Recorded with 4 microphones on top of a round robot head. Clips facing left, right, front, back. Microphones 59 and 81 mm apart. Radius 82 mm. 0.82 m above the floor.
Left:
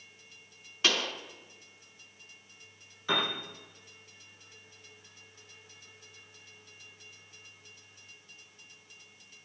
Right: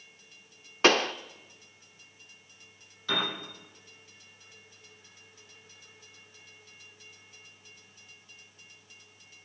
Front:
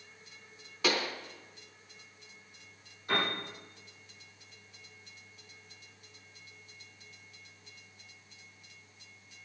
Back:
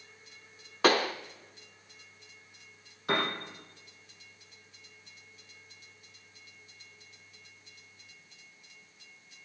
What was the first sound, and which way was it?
A pop, 125° right.